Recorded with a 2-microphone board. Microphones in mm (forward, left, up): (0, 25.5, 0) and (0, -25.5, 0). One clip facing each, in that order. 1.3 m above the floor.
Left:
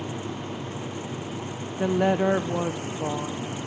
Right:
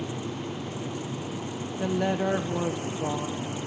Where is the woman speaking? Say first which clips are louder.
Left 5 dB; 20° left (ahead or behind), 0.6 m.